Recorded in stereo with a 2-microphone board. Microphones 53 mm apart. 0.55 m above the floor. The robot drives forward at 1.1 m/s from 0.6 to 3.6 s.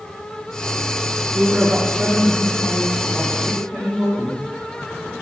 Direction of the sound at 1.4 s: 15° right (ahead or behind).